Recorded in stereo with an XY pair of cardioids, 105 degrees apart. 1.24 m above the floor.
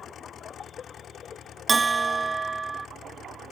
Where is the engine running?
55° left.